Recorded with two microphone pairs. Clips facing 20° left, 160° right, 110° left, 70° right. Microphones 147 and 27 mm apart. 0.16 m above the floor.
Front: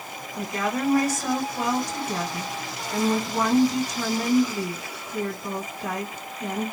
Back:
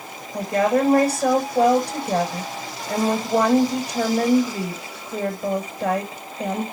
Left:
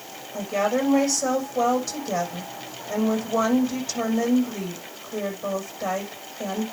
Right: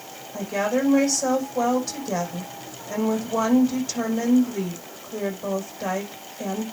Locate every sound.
0.3 s a woman speaking: 145° right, 7 m